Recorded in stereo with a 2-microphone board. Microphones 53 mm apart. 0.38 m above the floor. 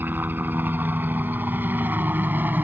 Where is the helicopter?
35° right (ahead or behind).